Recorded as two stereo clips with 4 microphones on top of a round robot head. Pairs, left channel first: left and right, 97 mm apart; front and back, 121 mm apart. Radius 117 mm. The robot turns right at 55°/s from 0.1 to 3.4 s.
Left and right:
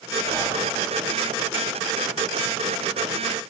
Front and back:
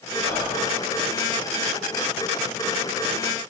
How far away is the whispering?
About 1.2 m.